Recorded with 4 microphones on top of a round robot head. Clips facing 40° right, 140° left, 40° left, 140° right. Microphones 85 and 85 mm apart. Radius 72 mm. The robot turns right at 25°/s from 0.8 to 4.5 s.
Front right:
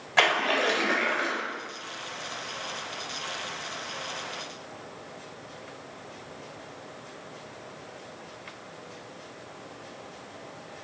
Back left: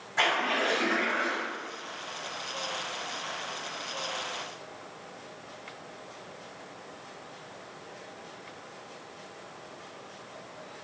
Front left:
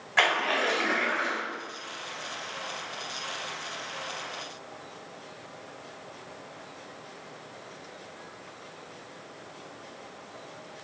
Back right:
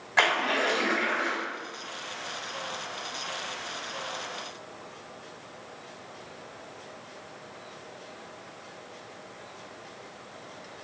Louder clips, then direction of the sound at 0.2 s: Front right 3 dB, even; 65° right.